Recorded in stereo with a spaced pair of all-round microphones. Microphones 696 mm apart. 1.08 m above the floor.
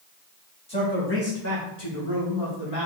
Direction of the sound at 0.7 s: 10° left (ahead or behind).